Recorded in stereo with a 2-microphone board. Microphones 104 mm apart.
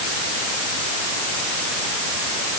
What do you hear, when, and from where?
Only background noise.